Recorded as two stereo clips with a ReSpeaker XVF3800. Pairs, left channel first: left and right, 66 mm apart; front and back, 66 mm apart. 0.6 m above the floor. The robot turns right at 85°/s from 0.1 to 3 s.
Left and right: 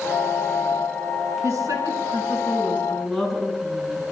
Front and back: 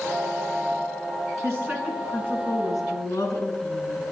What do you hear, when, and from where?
1.4 s a woman speaking: 135° right, 7 m; by 4.0 s 5° right, 7 m